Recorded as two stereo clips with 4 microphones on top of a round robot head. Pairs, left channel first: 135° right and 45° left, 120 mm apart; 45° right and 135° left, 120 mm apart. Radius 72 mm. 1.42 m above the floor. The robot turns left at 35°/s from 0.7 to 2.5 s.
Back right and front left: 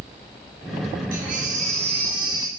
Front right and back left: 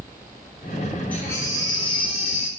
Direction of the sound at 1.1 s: 30° left.